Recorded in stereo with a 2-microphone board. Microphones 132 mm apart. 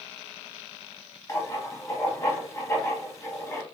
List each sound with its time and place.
1.3 s writing: 25° left (ahead or behind), 0.8 m